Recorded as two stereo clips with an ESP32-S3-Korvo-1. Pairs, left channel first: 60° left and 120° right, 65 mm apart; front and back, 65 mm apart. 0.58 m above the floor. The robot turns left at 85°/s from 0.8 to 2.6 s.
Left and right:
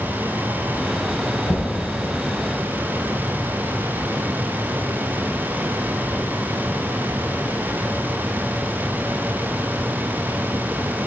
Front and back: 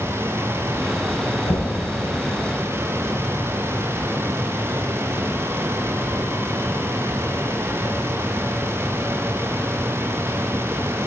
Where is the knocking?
15° left, 1.4 m; by 1.8 s 15° right, 1.4 m.